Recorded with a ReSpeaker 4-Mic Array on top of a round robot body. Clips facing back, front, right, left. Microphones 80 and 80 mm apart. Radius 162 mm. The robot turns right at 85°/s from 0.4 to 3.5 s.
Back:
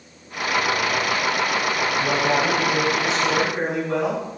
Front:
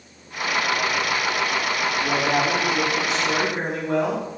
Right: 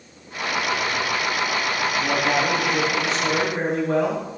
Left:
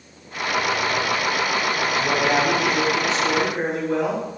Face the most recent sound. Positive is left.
turn(degrees=-75)